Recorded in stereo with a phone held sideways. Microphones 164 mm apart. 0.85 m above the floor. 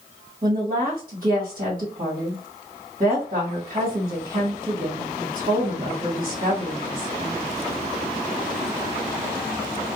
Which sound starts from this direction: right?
A woman speaking, at 0.4 s.